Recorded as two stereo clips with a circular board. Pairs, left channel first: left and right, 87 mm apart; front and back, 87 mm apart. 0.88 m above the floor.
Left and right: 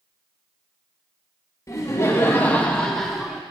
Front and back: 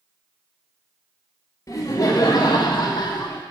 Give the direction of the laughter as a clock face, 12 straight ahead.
11 o'clock.